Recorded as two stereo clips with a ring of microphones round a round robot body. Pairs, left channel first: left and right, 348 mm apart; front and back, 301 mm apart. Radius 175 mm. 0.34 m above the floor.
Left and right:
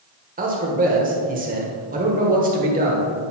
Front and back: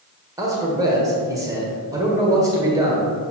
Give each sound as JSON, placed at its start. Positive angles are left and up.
{"t": 0.4, "sound": "a man speaking", "azimuth_deg": -115, "distance_m": 1.2}